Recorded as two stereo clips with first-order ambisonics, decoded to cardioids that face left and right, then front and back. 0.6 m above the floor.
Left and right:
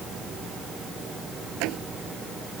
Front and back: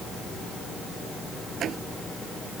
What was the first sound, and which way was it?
A door slam, 120° right.